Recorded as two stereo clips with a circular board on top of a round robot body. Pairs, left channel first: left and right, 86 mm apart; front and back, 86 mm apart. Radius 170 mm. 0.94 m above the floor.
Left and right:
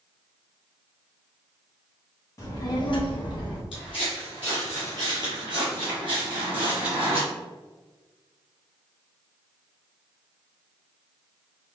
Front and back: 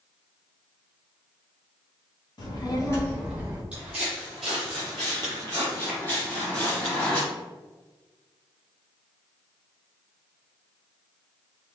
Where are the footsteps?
105° left, 1.2 m; by 7.2 s 70° right, 2.5 m.